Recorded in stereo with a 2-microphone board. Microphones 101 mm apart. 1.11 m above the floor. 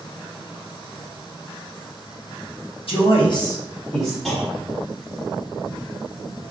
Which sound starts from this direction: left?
A man speaking, at 2.9 s.